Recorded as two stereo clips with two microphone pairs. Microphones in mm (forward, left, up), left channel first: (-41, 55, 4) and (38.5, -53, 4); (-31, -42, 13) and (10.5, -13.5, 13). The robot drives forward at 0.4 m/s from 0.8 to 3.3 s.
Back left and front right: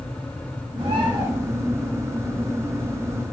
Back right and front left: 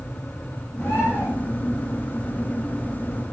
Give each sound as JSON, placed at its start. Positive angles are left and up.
{"t": 0.8, "sound": "a bird", "azimuth_deg": -105, "distance_m": 4.0}